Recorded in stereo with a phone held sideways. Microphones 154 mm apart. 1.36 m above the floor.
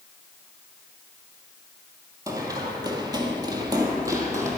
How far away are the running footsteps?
About 1.7 m.